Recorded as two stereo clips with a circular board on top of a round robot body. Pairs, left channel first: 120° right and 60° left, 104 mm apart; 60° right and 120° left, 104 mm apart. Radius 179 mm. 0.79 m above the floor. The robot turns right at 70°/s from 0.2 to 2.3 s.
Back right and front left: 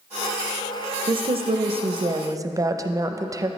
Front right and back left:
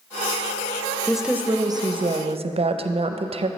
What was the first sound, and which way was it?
A woman speaking, 25° left.